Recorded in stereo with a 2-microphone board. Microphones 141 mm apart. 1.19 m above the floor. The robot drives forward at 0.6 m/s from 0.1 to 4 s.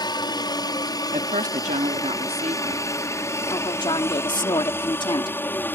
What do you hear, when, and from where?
0.0 s a helicopter: 30° left (ahead or behind); by 5.8 s 15° left (ahead or behind)
1.1 s a woman speaking: 70° right (ahead or behind); by 2.9 s 45° right (ahead or behind)
3.5 s a woman speaking: 35° left (ahead or behind)